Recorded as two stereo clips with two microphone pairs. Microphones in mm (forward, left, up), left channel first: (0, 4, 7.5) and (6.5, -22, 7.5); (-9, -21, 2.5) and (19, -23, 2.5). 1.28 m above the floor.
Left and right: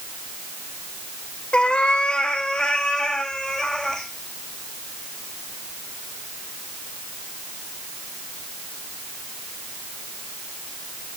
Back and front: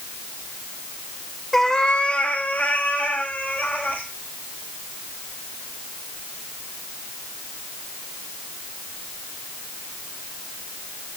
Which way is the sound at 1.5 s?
100° left.